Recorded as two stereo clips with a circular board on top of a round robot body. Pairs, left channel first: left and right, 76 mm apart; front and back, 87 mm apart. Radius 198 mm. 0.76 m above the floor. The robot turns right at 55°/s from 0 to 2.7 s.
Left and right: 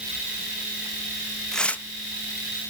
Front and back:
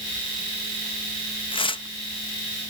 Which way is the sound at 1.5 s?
5° left.